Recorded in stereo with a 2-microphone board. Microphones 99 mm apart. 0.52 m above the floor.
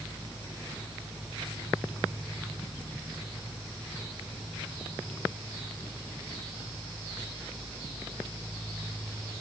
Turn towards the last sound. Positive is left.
No sound to turn to.